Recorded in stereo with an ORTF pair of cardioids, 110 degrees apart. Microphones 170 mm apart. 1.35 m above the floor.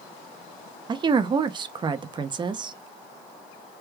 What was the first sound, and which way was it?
A woman speaking, 30° right.